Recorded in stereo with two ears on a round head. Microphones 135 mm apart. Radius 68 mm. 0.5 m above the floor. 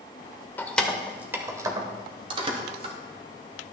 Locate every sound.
0.6 s keys jangling: 15° left (ahead or behind), 0.9 m; by 3.0 s 45° right (ahead or behind), 1.7 m